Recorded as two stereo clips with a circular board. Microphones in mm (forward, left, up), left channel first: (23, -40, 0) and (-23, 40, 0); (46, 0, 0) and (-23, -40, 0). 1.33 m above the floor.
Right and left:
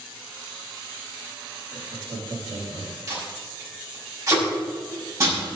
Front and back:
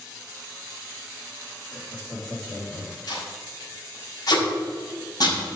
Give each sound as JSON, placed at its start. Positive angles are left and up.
{"t": 1.7, "sound": "laughter", "azimuth_deg": 90, "distance_m": 3.5}
{"t": 3.1, "sound": "tape being pulled", "azimuth_deg": 65, "distance_m": 6.0}